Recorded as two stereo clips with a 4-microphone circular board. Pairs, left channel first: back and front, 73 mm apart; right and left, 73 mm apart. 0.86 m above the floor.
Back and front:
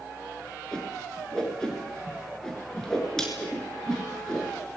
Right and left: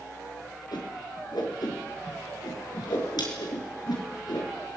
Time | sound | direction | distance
0.7 | a whoosh | 100° right | 5.5 m